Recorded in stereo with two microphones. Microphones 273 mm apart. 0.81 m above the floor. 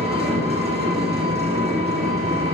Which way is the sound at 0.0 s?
20° right (ahead or behind).